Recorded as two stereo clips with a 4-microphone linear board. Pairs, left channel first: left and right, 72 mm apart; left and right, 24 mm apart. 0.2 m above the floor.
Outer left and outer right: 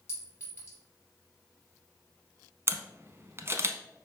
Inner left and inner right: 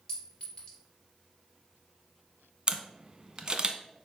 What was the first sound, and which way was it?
A clink, 40° left (ahead or behind).